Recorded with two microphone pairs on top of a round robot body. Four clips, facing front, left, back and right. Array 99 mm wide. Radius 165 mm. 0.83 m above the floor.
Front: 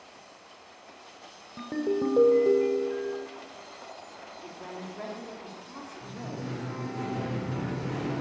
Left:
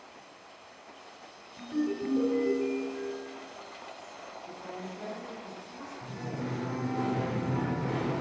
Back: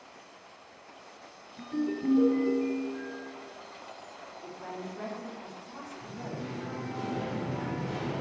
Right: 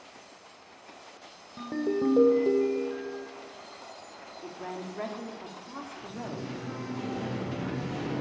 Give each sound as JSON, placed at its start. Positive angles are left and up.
{"t": 1.6, "sound": "a ringtone", "azimuth_deg": -35, "distance_m": 1.5}
{"t": 4.4, "sound": "a woman speaking", "azimuth_deg": -80, "distance_m": 2.5}
{"t": 6.0, "sound": "singing", "azimuth_deg": 80, "distance_m": 4.0}